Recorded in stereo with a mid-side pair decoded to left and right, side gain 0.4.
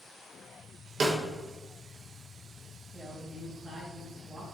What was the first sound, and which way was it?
A snare drum, 55° right.